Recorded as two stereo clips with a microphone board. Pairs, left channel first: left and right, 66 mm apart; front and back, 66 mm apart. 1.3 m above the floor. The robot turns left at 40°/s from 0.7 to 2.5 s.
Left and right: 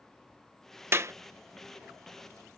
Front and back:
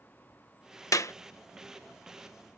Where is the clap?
35° right; by 1.1 s 45° right.